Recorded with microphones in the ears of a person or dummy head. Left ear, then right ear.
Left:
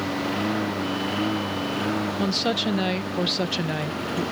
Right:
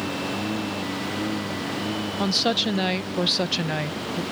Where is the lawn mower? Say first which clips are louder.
Left 2 dB; 55° left (ahead or behind).